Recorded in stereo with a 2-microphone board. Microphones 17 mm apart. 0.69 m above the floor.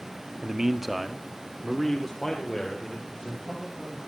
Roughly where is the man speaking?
Right.